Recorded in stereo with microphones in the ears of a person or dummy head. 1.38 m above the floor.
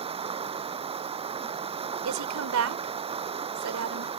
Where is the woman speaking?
70° right (ahead or behind).